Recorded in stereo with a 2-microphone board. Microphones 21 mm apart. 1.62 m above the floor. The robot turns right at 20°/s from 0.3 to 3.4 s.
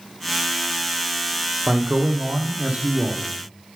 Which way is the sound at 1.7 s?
115° right.